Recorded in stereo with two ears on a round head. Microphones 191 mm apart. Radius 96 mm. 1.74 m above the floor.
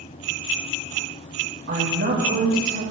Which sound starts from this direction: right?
A woman speaking, at 1.7 s.